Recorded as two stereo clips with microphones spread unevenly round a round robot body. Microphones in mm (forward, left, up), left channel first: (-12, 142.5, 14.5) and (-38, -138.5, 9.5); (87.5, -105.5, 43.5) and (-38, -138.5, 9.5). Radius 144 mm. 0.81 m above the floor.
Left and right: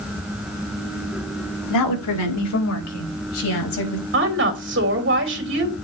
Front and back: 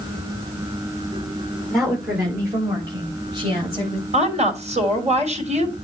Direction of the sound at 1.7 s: 105° left.